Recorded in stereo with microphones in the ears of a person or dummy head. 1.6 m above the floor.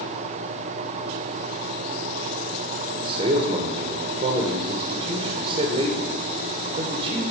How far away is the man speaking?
About 1.7 m.